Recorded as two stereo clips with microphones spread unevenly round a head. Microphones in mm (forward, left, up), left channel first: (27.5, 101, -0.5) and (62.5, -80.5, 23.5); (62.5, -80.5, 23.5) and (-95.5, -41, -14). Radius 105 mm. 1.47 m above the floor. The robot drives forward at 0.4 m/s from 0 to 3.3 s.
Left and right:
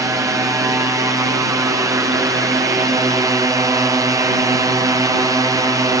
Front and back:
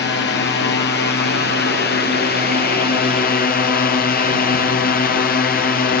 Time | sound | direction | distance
0.0 | a drone | 5° right | ?